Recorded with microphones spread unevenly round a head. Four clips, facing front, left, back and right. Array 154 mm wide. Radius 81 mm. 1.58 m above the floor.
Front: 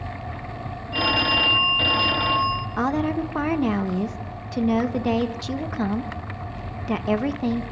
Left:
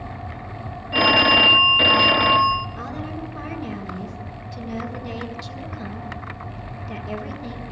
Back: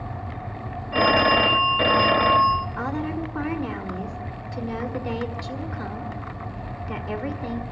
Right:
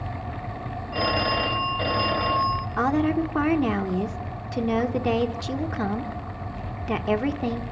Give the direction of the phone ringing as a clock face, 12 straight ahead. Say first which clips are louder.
Left 7 dB, back 5 dB; 7 o'clock.